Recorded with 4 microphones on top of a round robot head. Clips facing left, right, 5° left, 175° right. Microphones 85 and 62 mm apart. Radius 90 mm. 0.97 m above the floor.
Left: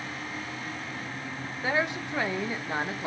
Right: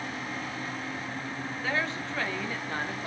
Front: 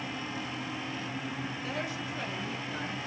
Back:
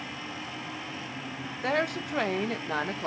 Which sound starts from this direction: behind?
A woman speaking, at 1.6 s.